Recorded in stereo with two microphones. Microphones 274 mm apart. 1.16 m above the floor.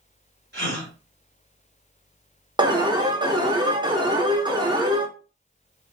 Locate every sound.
0.5 s a gasp: 40° right (ahead or behind), 1.7 m
2.6 s an alarm: 15° right (ahead or behind), 0.7 m